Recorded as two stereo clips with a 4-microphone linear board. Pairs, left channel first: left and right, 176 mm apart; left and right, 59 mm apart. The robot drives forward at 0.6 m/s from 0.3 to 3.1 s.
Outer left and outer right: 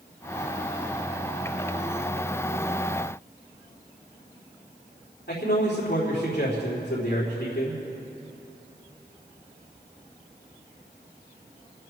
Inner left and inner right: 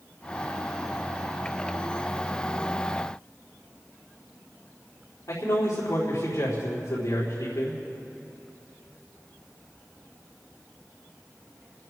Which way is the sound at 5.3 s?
75° left (ahead or behind).